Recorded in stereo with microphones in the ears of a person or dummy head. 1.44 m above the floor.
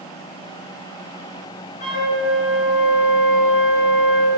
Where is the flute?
50° left (ahead or behind), 1.9 m.